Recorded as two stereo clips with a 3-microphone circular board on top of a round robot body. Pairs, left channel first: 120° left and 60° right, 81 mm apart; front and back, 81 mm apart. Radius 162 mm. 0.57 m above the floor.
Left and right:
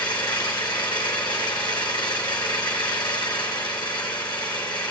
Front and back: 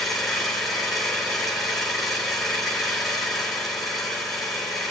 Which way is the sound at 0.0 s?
90° left.